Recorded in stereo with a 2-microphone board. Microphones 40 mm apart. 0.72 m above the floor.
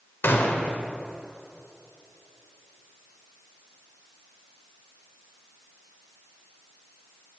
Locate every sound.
0.2 s a gunshot: 65° left (ahead or behind), 0.8 m